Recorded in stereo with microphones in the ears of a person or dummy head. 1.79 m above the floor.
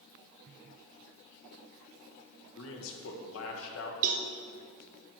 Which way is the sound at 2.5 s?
75° left (ahead or behind).